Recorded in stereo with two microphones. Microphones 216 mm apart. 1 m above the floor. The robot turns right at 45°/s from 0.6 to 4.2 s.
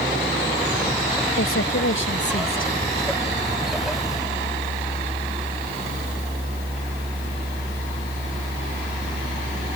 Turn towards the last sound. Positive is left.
turn(degrees=-150)